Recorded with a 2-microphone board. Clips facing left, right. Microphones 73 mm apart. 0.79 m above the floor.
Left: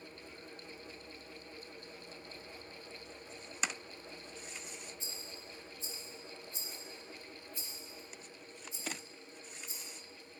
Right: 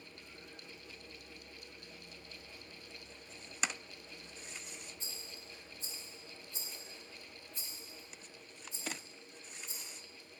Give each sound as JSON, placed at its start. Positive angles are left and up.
{"t": 5.0, "sound": "a rattle", "side_deg": -65, "distance_m": 2.0}